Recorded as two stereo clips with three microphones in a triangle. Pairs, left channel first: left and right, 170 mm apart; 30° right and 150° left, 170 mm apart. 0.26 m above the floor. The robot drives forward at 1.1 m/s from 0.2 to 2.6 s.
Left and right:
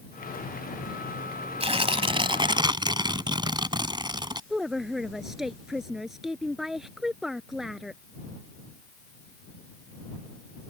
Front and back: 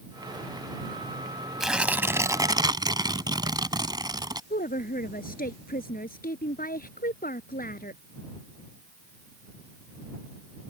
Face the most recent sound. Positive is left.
turn(degrees=0)